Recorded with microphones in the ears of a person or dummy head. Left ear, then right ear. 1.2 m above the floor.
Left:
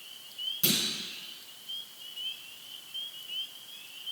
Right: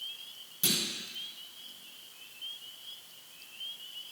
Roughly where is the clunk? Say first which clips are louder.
Left 1 dB; centre.